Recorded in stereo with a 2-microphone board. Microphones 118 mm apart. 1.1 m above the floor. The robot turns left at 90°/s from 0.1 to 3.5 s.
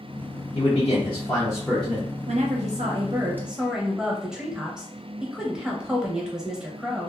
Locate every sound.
0.6 s a man speaking: 110° left, 0.6 m; by 2.0 s 25° right, 0.6 m
2.3 s a woman speaking: 60° right, 0.8 m; by 7.1 s 175° right, 0.8 m